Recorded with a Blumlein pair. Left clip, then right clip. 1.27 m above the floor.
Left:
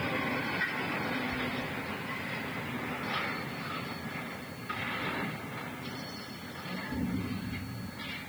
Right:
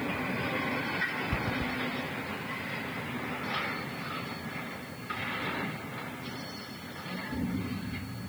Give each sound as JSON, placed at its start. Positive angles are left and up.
{"t": 1.3, "sound": "running footsteps", "azimuth_deg": -65, "distance_m": 4.0}